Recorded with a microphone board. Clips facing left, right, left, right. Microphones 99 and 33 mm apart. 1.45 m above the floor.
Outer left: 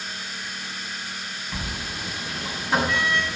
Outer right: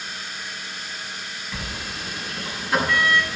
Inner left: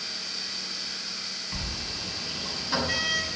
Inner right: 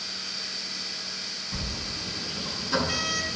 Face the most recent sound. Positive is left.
turn(degrees=20)  # may be behind; listen again after turning